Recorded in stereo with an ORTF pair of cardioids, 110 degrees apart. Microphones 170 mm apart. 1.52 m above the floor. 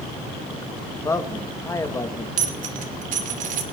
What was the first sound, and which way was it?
A man speaking, 15° left.